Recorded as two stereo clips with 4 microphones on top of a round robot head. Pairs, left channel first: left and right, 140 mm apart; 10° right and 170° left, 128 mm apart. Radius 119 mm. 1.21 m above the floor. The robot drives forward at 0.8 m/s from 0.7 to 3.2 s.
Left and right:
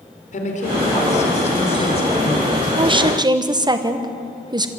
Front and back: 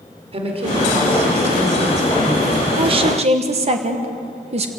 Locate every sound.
0.3 s a woman speaking: 125° left, 4 m; by 2.6 s 140° left, 5 m
2.8 s a woman speaking: 140° right, 1.1 m; by 4.7 s 150° right, 1.3 m